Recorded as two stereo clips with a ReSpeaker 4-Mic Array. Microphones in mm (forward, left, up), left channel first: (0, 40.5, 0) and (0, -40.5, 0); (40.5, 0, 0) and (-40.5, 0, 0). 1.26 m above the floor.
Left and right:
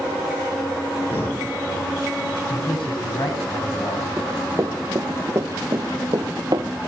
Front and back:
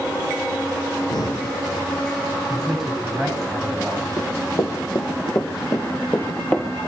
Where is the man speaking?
90° left, 9 m.